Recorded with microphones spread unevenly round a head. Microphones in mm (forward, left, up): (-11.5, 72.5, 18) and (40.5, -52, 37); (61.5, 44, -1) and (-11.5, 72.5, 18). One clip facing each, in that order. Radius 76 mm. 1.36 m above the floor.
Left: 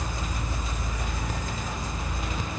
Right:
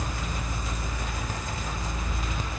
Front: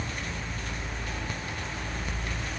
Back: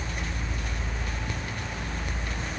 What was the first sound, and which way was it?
Only background noise.